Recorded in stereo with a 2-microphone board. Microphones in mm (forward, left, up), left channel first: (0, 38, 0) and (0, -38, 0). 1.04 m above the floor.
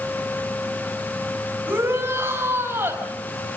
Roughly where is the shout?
Right.